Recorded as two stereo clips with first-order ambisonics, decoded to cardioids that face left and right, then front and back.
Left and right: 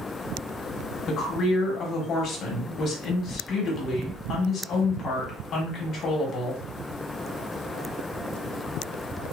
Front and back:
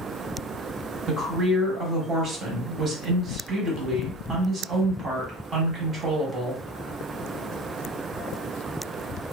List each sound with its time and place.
1.1 s a woman speaking: 125° left, 1.0 m